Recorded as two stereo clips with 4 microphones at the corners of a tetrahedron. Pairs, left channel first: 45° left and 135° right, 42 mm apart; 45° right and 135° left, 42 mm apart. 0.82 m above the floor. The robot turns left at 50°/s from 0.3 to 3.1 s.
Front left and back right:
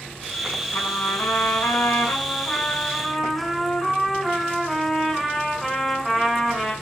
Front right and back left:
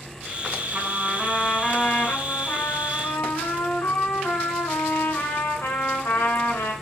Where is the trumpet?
75° left, 6 m; by 6.7 s 45° right, 6 m.